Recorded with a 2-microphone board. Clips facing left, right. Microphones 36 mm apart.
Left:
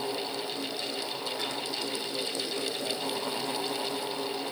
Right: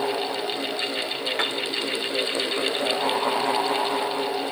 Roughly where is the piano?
Right.